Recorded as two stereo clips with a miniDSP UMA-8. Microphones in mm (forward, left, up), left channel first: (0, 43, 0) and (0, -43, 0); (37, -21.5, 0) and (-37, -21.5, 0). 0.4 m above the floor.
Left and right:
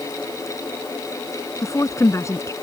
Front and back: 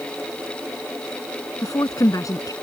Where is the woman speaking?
35° left.